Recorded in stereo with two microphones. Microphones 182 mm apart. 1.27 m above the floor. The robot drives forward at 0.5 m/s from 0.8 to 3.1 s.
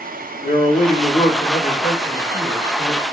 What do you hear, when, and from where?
0.4 s a man speaking: 45° left (ahead or behind), 1.6 m; by 3.0 s 25° left (ahead or behind), 2.5 m